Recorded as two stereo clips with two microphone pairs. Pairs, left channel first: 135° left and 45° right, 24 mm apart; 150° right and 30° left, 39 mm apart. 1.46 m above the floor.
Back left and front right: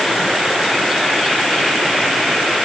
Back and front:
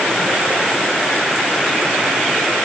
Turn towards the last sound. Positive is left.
No sound to turn to.